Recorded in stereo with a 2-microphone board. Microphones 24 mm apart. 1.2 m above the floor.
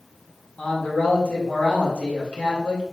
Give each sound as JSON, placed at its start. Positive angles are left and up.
{"t": 0.6, "sound": "a man speaking", "side_deg": 35, "distance_m": 1.9}